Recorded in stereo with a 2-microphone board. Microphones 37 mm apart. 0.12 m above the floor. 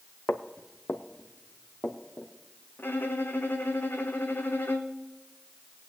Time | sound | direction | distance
0.3 | footsteps | 85° left | 0.9 m
2.8 | a violin | 70° left (ahead or behind) | 1.1 m